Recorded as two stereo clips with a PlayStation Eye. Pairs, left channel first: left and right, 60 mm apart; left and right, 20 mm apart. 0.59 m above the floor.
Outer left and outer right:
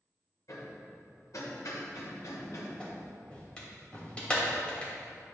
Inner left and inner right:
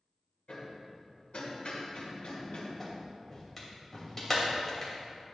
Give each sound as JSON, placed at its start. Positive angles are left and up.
{"t": 0.5, "sound": "hammering", "side_deg": 70, "distance_m": 1.8}
{"t": 2.8, "sound": "a clap", "side_deg": 20, "distance_m": 2.5}